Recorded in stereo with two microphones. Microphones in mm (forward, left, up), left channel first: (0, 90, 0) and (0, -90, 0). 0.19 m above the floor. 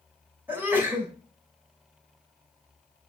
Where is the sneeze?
10° right (ahead or behind), 1.9 m.